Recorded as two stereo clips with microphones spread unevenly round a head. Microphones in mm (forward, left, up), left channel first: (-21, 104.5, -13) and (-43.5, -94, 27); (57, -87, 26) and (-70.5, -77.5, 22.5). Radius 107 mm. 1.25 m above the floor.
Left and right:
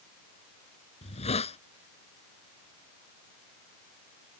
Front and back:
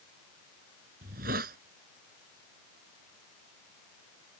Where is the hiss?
145° left.